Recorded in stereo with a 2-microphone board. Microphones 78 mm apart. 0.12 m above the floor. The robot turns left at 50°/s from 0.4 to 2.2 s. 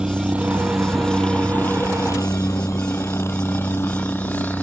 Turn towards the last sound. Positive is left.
turn(degrees=25)  # may be behind; listen again after turning